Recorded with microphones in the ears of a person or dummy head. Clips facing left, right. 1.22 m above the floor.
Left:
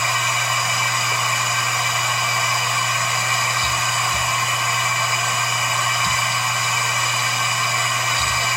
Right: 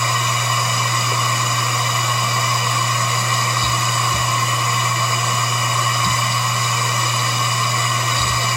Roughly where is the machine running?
Right.